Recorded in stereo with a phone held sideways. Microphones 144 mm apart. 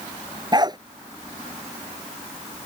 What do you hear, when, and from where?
0.5 s a dog barking: 30° right (ahead or behind)